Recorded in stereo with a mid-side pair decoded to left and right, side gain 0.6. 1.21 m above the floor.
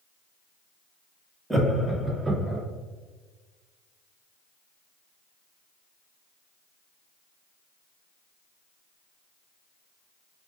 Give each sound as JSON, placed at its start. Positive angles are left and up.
{"t": 1.5, "sound": "laughter", "azimuth_deg": -5, "distance_m": 1.3}